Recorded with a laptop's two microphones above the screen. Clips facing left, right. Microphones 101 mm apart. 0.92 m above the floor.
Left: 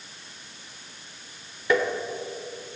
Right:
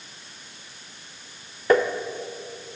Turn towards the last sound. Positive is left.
turn(degrees=-45)  # may be behind; listen again after turning